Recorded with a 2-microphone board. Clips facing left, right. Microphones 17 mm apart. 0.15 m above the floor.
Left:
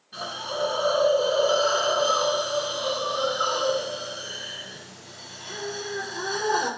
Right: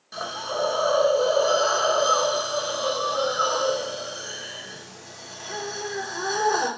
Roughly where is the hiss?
Right.